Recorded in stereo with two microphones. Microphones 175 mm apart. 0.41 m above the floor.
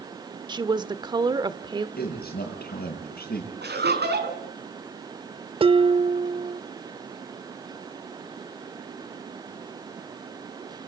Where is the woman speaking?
25° right (ahead or behind), 1.2 m.